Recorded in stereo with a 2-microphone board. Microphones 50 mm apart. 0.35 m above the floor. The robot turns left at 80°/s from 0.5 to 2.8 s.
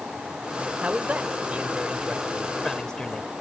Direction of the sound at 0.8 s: 20° right (ahead or behind).